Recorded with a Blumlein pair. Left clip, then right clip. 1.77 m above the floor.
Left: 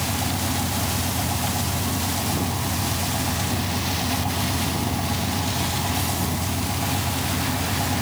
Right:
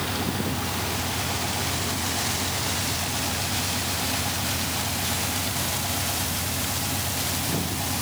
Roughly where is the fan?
Ahead.